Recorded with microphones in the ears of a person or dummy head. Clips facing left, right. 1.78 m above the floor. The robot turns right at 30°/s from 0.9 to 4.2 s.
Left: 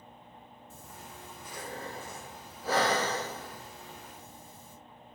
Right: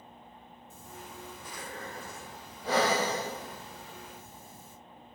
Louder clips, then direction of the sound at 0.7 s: Right 3 dB; 55° left (ahead or behind).